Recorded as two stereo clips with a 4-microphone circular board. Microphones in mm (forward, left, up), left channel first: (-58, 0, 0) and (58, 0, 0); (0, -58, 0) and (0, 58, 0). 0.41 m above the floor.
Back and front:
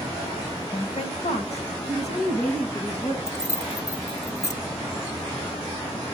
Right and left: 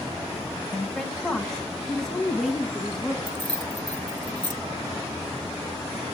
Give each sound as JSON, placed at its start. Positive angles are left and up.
{"t": 0.7, "sound": "a woman speaking", "azimuth_deg": -175, "distance_m": 2.5}
{"t": 3.3, "sound": "keys jangling", "azimuth_deg": 130, "distance_m": 0.8}